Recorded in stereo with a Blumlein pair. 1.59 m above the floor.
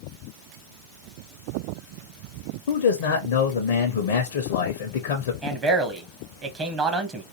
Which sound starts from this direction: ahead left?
A man speaking, at 2.7 s.